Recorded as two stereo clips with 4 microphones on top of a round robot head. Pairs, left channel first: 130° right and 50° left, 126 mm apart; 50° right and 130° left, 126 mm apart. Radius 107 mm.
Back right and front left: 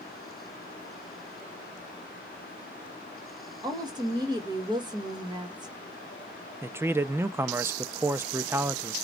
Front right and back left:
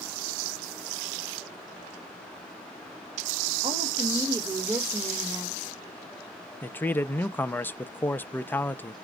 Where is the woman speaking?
90° left, 1.5 m.